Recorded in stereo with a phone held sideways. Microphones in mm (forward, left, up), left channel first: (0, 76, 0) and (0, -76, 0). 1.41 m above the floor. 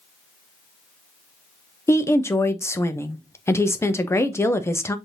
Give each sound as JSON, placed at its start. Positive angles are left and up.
{"t": 1.9, "sound": "a woman speaking", "side_deg": 15, "distance_m": 0.6}